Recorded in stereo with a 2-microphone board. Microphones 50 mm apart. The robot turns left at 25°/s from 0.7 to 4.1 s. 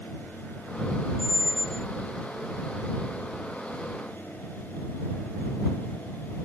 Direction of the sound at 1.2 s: 55° left (ahead or behind).